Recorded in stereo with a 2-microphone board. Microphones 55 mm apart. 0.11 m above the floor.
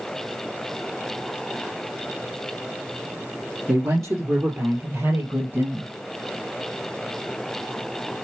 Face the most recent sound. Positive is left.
turn(degrees=-40)  # may be behind; listen again after turning